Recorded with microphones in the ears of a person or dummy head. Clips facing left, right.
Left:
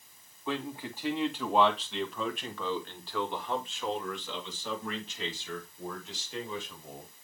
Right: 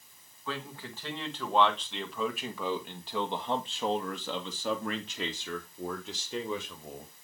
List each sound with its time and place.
0.5 s a man speaking: 15° left (ahead or behind), 2.5 m; by 7.1 s 80° right, 3 m